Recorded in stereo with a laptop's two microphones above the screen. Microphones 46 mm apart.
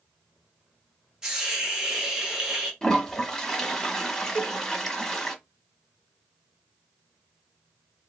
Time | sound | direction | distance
1.2 | a hiss | 10° right (ahead or behind) | 1.2 m
2.8 | a toilet flushing | 10° left (ahead or behind) | 1.2 m
4.3 | a cowbell | 30° left (ahead or behind) | 2.5 m